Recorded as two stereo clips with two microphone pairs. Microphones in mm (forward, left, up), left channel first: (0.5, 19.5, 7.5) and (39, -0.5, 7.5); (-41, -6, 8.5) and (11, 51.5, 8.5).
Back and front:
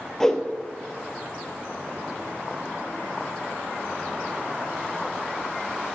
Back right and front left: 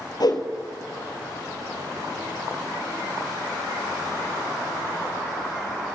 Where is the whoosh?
125° right, 1.6 m.